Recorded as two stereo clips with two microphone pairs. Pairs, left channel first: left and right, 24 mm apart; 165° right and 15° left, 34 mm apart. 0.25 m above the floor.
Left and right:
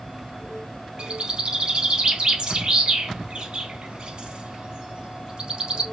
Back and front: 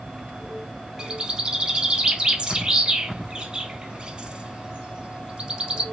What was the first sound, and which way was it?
A bird, 50° right.